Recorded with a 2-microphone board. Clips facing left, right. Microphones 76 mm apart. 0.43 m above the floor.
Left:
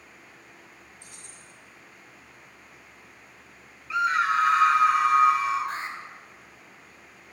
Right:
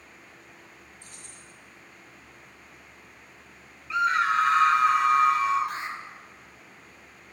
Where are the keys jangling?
15° left (ahead or behind), 3 m.